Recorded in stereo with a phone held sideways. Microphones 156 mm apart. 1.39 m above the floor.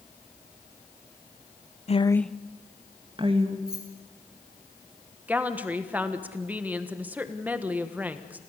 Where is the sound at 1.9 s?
45° left (ahead or behind), 0.6 m; by 3.6 s 40° right (ahead or behind), 1.9 m.